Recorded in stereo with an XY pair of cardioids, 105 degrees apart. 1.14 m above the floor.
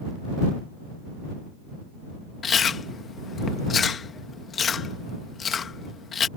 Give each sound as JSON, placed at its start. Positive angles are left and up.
{"t": 2.4, "sound": "chewing", "azimuth_deg": 45}